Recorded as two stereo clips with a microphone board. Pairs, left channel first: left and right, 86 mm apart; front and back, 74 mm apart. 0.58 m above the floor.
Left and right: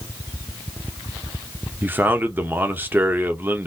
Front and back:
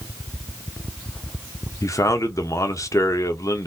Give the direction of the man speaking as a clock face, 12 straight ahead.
1 o'clock.